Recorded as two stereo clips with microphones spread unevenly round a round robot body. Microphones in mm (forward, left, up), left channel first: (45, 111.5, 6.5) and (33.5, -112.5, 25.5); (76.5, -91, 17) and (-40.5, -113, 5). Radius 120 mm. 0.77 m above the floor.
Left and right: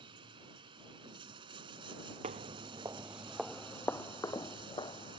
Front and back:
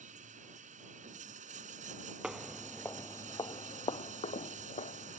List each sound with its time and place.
0.0 s running water: 165° right
2.2 s footsteps: 80° right; by 5.2 s 20° left